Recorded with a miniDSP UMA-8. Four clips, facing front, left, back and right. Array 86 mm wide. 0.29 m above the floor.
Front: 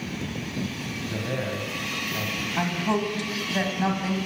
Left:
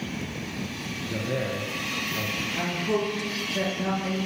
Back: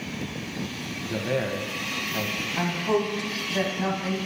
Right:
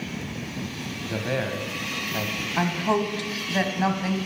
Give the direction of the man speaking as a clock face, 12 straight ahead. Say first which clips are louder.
Right 2 dB, back 4 dB; 3 o'clock.